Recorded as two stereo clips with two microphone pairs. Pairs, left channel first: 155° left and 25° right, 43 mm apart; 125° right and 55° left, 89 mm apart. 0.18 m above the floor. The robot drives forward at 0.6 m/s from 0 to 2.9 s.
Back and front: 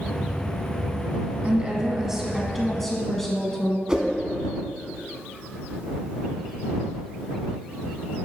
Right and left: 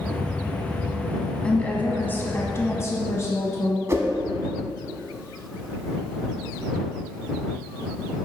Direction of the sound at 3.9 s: 35° left.